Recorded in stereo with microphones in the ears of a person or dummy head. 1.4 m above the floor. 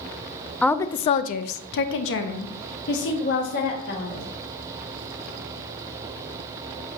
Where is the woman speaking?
5° left (ahead or behind), 0.6 m; by 4.2 s 60° left (ahead or behind), 2 m.